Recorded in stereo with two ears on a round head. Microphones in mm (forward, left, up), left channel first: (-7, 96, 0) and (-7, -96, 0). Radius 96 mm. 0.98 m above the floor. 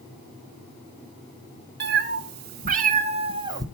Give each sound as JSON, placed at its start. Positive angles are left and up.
{"t": 1.8, "sound": "a cat meowing", "side_deg": -55, "distance_m": 1.5}